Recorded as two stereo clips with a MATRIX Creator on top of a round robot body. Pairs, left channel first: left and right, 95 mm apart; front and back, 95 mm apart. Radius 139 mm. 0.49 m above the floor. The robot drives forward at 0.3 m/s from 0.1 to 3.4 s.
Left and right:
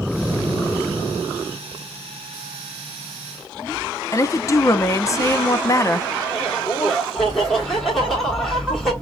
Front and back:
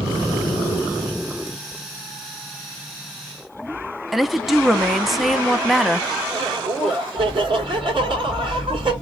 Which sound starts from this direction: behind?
Laughter, at 6.3 s.